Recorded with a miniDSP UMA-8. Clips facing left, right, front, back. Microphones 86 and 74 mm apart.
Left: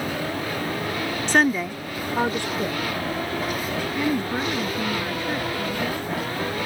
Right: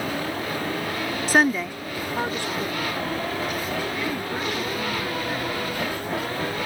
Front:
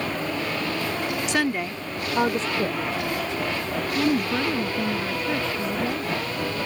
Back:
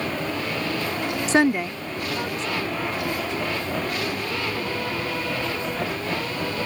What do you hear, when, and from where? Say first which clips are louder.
1.3 s a woman speaking: even, back 8 dB; 165° right; by 6.1 s 20° left